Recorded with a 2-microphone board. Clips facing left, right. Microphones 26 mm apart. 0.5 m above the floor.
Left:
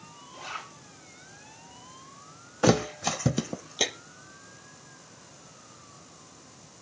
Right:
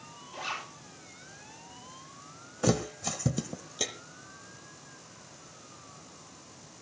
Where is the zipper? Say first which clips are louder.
Right 2 dB; 35° right (ahead or behind), 8.5 m.